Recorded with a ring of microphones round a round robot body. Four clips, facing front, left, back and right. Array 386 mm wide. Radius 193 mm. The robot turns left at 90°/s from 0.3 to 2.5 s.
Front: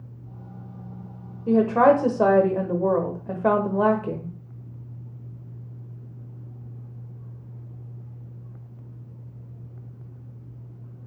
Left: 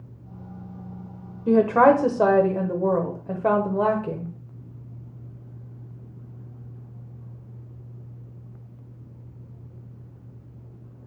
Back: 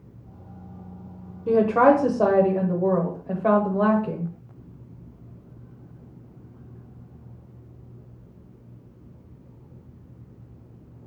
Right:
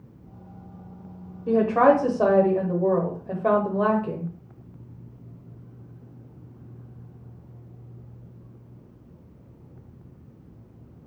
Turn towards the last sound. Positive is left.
turn(degrees=25)